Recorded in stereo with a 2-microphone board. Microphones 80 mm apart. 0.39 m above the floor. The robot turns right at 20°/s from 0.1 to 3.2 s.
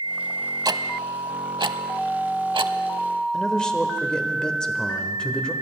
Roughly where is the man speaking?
Centre.